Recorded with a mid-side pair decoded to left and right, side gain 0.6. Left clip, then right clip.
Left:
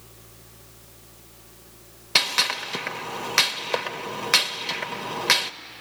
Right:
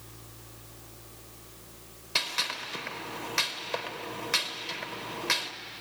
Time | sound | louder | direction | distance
2.1 | a gunshot | left 8 dB | 50° left | 1.0 m